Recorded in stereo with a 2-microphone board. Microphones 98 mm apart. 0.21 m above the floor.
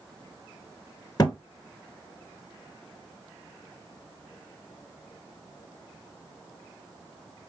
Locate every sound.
1.2 s a thud: 40° left (ahead or behind), 0.6 m